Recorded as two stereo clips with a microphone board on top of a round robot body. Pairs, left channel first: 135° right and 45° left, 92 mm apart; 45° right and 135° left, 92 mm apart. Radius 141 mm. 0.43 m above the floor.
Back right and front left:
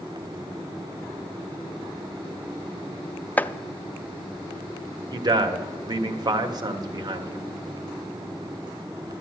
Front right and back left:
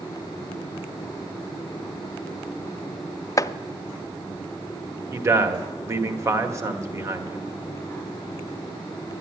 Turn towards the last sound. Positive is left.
turn(degrees=80)